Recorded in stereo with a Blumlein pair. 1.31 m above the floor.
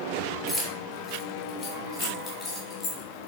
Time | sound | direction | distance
0.5 | keys jangling | 15° left | 3 m